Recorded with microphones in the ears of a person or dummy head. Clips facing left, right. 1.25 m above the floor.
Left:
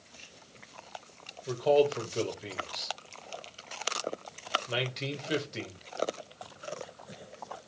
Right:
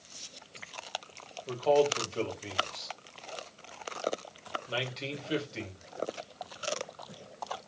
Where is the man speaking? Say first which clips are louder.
Left 1 dB; 20° left (ahead or behind), 1.2 m.